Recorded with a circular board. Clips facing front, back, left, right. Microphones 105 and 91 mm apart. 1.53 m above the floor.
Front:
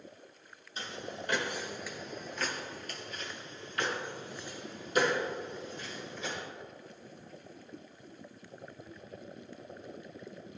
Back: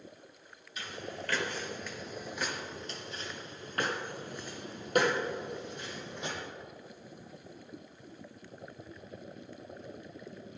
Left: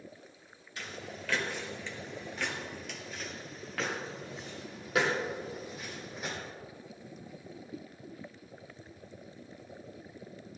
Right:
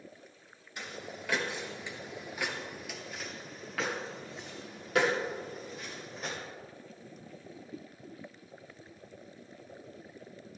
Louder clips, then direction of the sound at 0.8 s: Even, even; 30° right.